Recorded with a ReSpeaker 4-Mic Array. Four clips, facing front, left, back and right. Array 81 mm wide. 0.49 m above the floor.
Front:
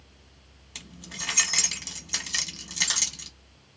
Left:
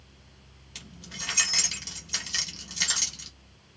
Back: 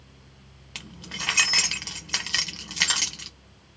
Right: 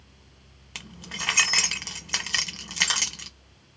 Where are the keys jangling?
115° right, 1.1 m.